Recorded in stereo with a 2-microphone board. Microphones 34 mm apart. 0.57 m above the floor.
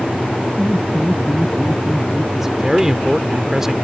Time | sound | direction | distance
0.6 | laughter | 40° right (ahead or behind) | ?
2.3 | a man speaking | 15° right (ahead or behind) | ?